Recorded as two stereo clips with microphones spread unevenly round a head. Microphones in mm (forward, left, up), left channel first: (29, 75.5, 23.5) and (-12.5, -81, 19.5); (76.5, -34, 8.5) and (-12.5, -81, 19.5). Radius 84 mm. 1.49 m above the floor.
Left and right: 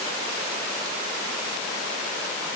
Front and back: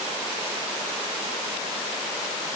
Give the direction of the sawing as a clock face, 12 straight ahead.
No sawing in this recording.